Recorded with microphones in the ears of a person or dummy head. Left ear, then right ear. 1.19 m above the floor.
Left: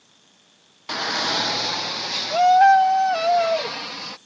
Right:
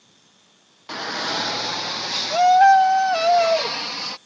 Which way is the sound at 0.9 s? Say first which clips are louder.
Left 3 dB; 10° left (ahead or behind).